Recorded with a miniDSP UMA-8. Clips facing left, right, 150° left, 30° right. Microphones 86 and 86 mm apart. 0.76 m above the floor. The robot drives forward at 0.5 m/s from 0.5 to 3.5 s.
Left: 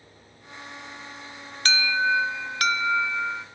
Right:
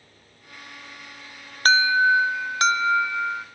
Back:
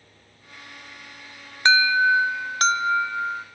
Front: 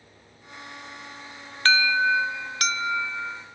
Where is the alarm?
135° right, 0.7 m; by 3.5 s 160° right, 1.5 m.